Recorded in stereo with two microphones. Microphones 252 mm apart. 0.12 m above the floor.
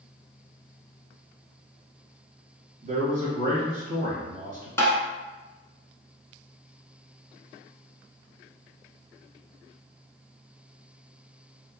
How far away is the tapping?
About 0.6 m.